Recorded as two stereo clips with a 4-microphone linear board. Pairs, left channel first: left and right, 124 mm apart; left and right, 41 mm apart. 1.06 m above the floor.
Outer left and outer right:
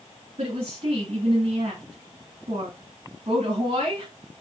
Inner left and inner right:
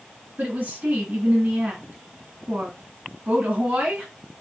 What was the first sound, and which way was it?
A woman speaking, 55° right (ahead or behind).